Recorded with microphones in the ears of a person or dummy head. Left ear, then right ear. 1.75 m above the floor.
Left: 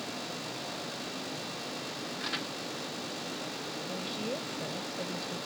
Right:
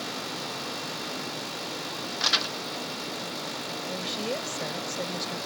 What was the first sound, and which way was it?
Crumpling, 50° right (ahead or behind).